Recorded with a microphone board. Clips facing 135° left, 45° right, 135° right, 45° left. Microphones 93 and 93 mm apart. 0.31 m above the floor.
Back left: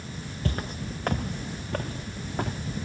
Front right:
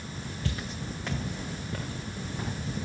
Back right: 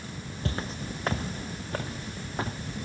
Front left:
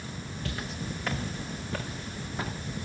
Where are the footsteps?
175° left, 0.5 m; by 2.6 s 170° left, 3 m.